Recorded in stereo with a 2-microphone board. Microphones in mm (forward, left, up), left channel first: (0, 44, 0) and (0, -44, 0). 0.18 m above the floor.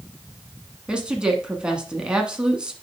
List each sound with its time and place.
0.9 s a woman speaking: 10° right (ahead or behind), 1.4 m